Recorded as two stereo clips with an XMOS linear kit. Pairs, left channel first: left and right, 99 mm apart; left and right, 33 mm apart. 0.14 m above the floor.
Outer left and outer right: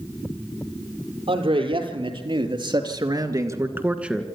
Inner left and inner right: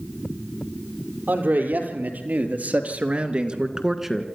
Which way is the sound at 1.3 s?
70° right (ahead or behind).